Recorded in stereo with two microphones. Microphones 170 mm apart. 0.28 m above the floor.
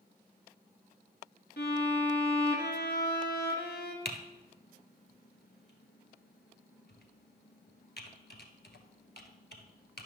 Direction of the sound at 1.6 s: 80° left.